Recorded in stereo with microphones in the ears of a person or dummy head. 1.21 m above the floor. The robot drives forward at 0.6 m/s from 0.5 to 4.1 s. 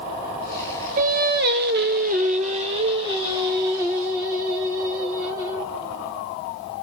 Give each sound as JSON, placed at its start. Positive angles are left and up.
{"t": 1.0, "sound": "singing", "side_deg": -40, "distance_m": 0.7}